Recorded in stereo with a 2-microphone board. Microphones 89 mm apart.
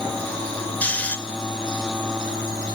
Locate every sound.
0.8 s snoring: 15° left (ahead or behind), 2 m